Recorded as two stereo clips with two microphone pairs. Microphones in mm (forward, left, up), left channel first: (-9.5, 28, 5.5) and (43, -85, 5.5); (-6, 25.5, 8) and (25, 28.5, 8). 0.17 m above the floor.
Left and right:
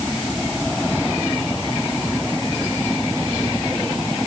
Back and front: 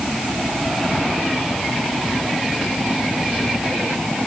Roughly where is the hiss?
I don't hear a hiss.